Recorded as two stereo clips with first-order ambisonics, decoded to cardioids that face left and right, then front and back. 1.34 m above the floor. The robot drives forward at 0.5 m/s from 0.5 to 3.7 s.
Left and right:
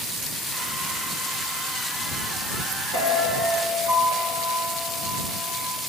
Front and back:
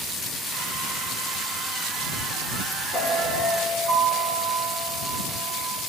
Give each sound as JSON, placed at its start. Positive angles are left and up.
{"t": 2.9, "sound": "a piano", "azimuth_deg": -95, "distance_m": 4.0}